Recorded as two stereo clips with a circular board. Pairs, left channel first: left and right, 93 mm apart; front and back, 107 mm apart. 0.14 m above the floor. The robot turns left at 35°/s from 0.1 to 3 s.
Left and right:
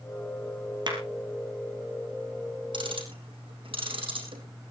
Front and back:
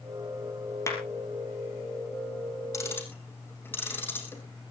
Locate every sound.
0.9 s a clap: 60° right, 3 m; by 1.0 s 65° right, 3 m
2.7 s ticking: 60° right, 3.5 m; by 4.4 s 70° right, 3.5 m